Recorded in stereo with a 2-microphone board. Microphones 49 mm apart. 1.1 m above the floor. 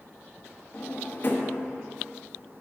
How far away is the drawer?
About 1.1 m.